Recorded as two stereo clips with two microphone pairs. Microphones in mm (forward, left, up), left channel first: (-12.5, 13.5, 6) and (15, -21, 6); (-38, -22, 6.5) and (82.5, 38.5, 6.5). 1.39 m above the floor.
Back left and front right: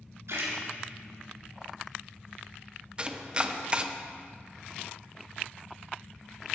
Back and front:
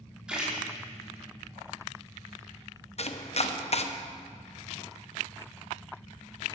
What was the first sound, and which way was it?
A splash, 55° right.